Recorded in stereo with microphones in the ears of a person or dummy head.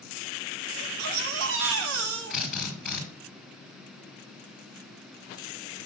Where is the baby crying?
65° right (ahead or behind), 1.0 m.